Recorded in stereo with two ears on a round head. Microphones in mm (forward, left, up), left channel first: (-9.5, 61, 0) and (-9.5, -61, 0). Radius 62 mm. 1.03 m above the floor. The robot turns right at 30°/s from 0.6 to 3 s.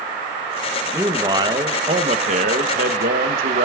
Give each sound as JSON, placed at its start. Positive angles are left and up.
{"t": 0.9, "sound": "a man speaking", "azimuth_deg": -165, "distance_m": 0.8}